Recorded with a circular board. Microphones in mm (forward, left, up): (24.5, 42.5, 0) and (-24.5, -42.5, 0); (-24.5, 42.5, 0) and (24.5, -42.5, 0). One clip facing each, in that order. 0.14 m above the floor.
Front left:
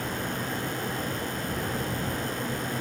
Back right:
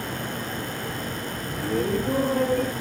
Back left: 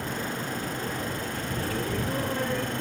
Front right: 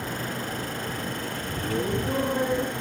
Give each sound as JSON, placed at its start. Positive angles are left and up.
{"t": 1.6, "sound": "laughter", "azimuth_deg": -130}